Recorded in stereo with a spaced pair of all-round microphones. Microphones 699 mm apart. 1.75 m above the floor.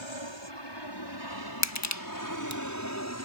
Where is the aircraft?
40° left (ahead or behind); by 3.3 s 20° left (ahead or behind).